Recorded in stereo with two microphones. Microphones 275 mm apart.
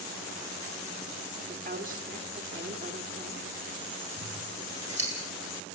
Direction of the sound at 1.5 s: 30° right (ahead or behind).